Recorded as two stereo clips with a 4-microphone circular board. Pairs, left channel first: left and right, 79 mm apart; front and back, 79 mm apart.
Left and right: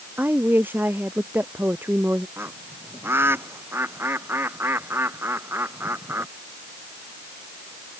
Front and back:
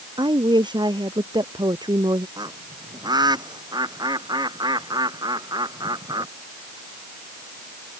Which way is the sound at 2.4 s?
150° right.